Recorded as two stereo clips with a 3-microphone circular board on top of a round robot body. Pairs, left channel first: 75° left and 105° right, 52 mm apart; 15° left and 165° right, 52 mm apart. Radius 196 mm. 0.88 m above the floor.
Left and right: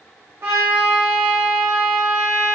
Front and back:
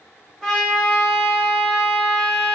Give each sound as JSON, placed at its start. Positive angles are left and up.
{"t": 0.4, "sound": "a trumpet", "azimuth_deg": -75, "distance_m": 1.8}